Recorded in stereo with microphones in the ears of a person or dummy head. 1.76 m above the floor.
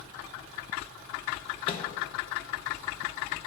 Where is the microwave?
30° left (ahead or behind), 0.7 m.